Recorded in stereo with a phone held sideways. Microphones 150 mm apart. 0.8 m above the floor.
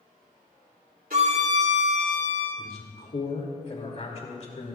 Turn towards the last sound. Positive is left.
turn(degrees=50)  # may be behind; listen again after turning